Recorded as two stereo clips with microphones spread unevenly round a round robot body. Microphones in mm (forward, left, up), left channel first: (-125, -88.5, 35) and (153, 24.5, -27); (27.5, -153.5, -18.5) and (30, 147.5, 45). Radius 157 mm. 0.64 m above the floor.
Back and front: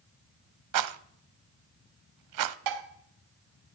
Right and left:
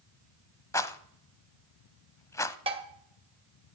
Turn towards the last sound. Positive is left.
turn(degrees=15)